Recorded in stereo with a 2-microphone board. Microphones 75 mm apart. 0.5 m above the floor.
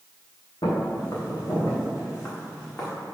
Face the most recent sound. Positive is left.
turn(degrees=30)  # may be behind; listen again after turning